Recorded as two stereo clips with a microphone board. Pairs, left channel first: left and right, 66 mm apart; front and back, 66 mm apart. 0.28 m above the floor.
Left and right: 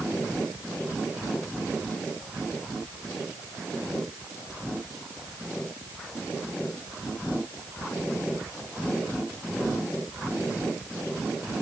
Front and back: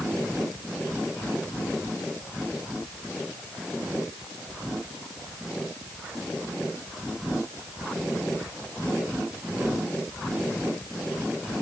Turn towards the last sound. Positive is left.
No sound to turn to.